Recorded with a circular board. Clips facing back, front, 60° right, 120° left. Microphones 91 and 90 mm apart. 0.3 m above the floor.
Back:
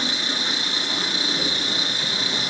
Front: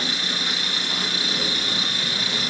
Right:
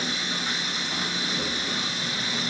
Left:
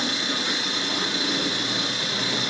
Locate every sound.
0.0 s an engine running: 115° left, 5 m